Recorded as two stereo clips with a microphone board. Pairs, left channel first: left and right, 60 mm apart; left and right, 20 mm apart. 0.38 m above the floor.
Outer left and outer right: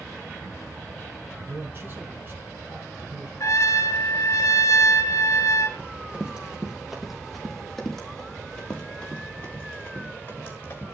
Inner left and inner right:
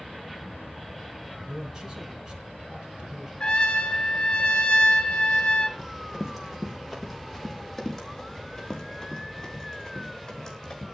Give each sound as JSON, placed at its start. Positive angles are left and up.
{"t": 1.4, "sound": "a man speaking", "side_deg": -35, "distance_m": 5.0}
{"t": 3.4, "sound": "a trumpet", "side_deg": 55, "distance_m": 2.5}
{"t": 5.8, "sound": "running footsteps", "side_deg": -20, "distance_m": 4.5}